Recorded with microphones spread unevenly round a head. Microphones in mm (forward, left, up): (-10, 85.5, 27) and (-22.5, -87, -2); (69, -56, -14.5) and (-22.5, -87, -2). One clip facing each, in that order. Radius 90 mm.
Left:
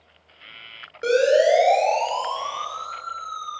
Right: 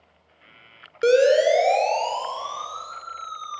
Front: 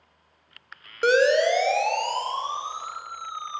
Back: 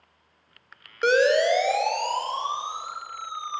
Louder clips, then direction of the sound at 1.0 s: Right 1 dB, even; 70° right.